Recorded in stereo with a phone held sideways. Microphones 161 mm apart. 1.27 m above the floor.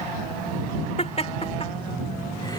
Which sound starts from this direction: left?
Laughter, at 1.0 s.